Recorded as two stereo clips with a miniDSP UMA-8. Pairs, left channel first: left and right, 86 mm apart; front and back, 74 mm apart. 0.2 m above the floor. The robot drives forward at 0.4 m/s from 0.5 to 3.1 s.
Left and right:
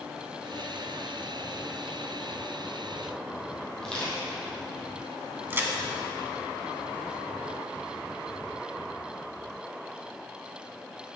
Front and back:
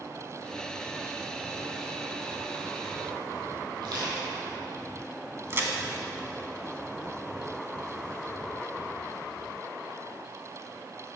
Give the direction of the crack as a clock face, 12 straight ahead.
5 o'clock.